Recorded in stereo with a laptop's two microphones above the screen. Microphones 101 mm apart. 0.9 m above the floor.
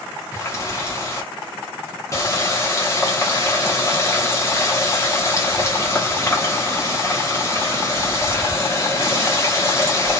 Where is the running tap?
30° left (ahead or behind), 0.6 m.